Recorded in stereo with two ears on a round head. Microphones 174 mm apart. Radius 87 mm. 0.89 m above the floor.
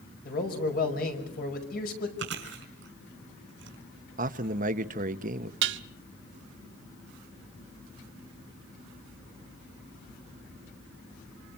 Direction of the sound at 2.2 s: 65° right (ahead or behind).